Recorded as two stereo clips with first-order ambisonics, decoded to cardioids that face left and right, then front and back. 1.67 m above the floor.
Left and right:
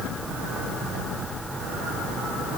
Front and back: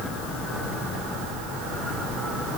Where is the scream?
I don't hear a scream.